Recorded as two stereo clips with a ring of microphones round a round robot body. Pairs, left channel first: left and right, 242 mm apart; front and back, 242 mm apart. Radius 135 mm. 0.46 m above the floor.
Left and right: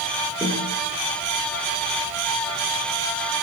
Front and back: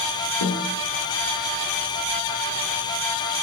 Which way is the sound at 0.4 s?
10° right.